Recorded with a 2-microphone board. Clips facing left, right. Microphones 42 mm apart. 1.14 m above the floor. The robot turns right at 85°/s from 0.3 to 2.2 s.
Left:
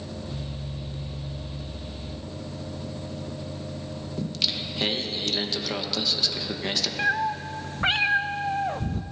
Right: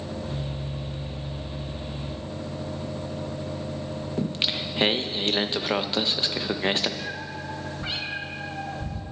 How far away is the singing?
About 0.7 m.